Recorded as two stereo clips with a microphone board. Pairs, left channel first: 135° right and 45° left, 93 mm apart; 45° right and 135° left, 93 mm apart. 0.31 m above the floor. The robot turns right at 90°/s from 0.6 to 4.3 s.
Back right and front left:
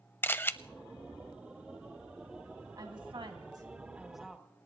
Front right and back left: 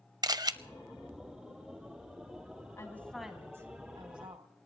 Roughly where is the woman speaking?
Ahead.